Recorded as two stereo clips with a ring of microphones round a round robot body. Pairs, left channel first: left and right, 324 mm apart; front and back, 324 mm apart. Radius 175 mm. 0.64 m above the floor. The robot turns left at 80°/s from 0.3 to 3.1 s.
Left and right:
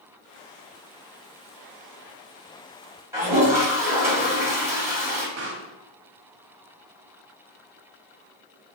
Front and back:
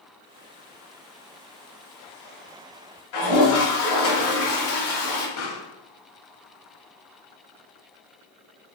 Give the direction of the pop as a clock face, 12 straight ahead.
1 o'clock.